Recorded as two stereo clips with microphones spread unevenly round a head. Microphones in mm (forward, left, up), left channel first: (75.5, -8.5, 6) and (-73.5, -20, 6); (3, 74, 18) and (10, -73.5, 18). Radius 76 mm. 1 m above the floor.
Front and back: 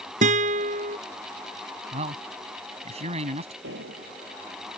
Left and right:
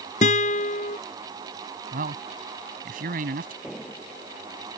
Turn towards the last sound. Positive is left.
turn(degrees=-175)